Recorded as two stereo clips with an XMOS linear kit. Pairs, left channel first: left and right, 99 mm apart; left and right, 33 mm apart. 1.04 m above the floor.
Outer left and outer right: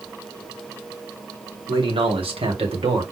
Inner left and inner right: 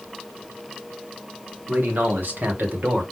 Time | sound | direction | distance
1.7 | a man speaking | 65° right (ahead or behind) | 3 m